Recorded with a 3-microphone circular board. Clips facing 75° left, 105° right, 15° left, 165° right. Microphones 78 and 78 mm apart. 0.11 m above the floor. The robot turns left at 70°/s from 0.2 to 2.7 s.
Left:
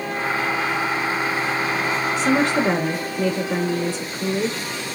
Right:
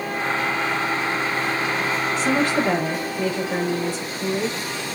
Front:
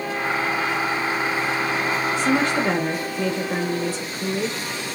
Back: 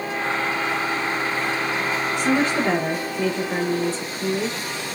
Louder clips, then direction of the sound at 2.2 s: Left 2 dB, back 1 dB; 135° left.